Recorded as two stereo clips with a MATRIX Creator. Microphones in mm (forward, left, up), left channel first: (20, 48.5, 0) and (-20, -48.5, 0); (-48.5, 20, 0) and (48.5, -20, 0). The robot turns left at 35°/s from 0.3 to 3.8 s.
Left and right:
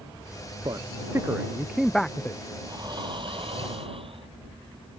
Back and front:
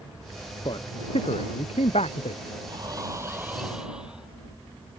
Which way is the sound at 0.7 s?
160° right.